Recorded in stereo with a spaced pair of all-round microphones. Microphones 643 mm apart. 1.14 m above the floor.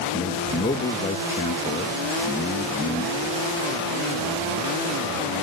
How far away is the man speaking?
About 1.3 m.